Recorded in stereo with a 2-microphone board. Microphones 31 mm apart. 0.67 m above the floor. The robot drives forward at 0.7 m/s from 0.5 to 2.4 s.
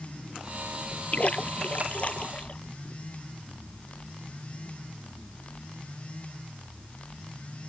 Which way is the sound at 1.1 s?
45° left (ahead or behind).